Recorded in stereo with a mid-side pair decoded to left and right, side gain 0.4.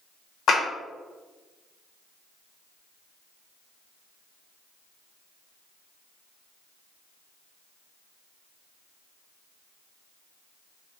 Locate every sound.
0.5 s a clap: 70° left, 1.3 m